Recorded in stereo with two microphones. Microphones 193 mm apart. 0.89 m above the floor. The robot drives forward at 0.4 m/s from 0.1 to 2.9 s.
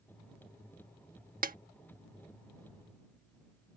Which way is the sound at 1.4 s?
50° right (ahead or behind).